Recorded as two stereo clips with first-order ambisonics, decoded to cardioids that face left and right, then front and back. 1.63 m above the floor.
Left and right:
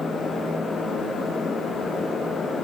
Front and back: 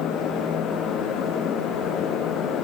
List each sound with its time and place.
Only background noise.